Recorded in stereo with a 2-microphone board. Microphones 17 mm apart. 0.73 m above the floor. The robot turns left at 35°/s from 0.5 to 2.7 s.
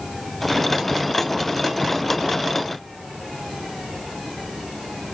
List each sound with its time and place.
Only background noise.